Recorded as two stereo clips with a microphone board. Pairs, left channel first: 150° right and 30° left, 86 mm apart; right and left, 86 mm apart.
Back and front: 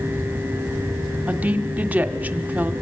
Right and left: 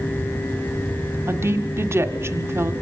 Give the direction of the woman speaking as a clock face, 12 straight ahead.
9 o'clock.